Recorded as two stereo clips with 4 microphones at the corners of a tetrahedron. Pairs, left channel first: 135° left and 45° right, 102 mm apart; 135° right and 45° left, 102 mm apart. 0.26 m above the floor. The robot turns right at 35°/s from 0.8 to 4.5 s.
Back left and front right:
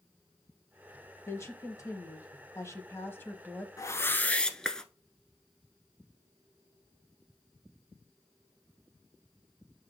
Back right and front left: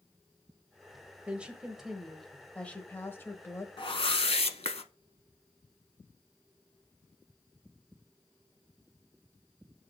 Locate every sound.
1.3 s a woman speaking: 110° left, 1.1 m; by 3.7 s 165° right, 1.1 m
3.8 s a whoosh: 170° right, 0.7 m; by 4.8 s 145° right, 0.7 m